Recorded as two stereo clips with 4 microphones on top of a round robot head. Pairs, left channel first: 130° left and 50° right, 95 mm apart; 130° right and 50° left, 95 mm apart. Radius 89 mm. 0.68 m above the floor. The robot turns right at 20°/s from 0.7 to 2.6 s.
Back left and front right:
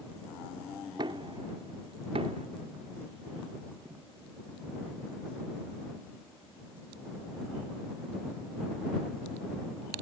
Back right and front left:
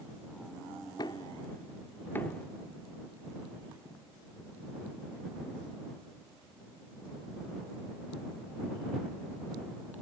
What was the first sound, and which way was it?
Knocking, 85° right.